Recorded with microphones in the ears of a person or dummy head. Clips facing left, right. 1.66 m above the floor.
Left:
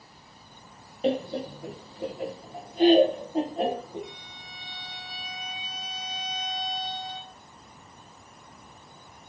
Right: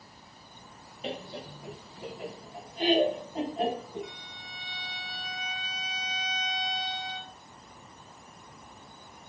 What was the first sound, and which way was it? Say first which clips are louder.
Laughter: left 11 dB; 35° left (ahead or behind).